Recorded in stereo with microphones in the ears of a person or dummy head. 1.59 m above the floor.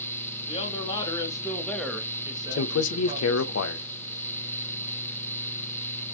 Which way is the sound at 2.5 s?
85° left.